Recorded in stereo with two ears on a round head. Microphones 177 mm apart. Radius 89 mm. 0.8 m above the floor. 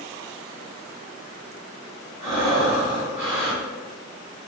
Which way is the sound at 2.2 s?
15° right (ahead or behind).